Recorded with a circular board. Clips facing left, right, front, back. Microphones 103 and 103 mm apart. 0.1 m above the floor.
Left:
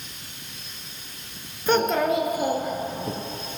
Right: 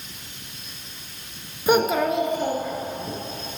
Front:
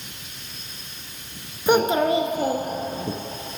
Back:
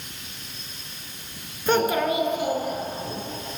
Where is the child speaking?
50° right, 0.7 m; by 3.1 s 25° left, 1.2 m.